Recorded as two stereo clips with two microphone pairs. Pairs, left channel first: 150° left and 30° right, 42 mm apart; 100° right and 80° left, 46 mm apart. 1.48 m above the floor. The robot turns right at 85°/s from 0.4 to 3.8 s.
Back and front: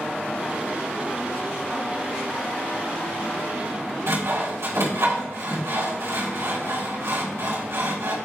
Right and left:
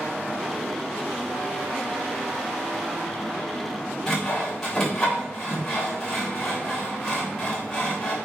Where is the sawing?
20° right, 3.5 m.